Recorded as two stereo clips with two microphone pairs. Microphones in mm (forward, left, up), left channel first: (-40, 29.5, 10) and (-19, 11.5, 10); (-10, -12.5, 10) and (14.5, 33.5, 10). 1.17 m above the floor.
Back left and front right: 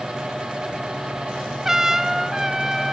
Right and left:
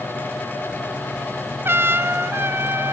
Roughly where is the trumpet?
Ahead left.